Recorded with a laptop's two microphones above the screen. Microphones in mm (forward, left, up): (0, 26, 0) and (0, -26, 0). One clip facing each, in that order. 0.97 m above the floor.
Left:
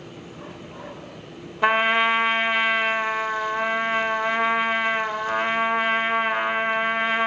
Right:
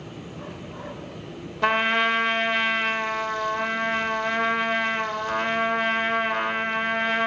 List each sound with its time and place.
1.6 s a trumpet: 15° left (ahead or behind), 0.7 m